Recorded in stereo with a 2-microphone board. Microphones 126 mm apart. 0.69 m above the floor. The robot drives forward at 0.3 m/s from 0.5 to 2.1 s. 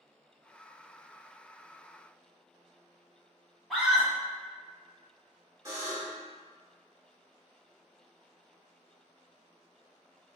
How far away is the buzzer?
About 1.9 m.